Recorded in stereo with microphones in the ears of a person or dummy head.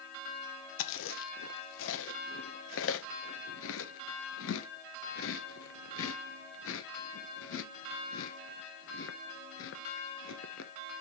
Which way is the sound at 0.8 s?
65° left (ahead or behind).